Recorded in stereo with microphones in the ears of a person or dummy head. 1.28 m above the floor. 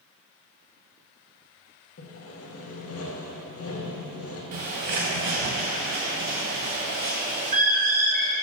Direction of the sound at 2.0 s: 75° left (ahead or behind).